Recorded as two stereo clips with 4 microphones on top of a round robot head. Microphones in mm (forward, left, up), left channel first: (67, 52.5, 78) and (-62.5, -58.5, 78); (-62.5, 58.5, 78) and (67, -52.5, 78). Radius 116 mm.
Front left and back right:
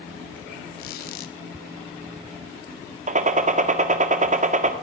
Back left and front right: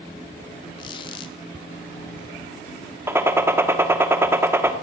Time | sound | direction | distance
0.8 | a squeak | 75° left | 0.8 m
3.1 | a gunshot | 115° right | 1.8 m